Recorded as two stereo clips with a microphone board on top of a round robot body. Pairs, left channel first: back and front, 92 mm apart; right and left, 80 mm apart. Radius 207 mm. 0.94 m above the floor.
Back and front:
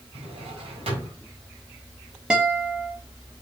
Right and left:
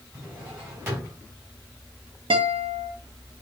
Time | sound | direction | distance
0.1 | a drawer | 25° left | 3.5 m
2.3 | a guitar | 80° left | 0.7 m